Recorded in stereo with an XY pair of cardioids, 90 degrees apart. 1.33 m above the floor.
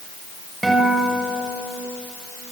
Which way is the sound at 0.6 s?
15° right.